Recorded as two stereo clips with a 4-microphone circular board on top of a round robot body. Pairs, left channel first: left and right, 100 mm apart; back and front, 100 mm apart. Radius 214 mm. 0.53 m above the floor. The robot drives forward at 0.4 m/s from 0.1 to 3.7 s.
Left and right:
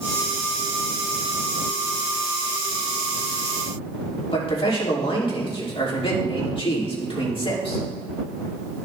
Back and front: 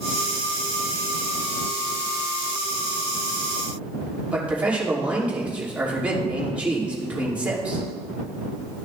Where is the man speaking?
75° left, 3 m.